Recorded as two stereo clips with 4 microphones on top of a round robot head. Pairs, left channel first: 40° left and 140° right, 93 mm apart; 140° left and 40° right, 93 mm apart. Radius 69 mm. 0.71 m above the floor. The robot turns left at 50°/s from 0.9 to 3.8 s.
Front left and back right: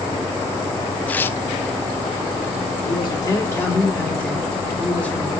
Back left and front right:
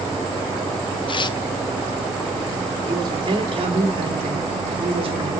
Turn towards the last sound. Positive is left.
turn(degrees=-35)